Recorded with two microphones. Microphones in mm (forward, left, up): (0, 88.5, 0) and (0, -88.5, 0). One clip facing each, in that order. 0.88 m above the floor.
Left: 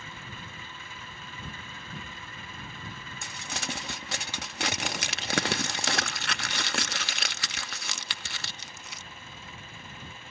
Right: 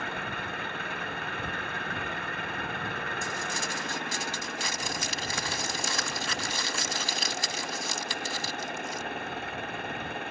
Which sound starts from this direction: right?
An engine running, at 0.0 s.